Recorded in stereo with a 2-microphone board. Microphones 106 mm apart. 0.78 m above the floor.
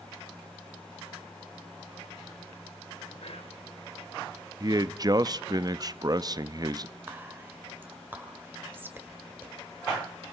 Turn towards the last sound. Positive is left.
turn(degrees=-20)  # may be behind; listen again after turning